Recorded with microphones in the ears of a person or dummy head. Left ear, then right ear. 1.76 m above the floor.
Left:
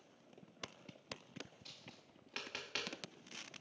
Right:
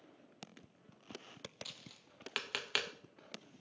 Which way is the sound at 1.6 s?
25° right (ahead or behind).